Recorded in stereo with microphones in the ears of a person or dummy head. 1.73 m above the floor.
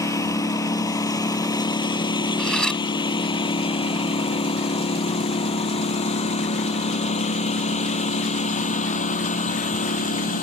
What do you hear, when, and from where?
0.0 s a lawn mower: 15° left (ahead or behind); by 10.4 s 35° left (ahead or behind)
2.4 s cutlery clinking: centre (ahead or behind)